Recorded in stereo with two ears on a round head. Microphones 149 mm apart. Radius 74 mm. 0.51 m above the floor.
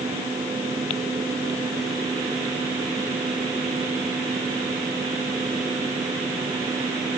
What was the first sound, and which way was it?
Only background noise.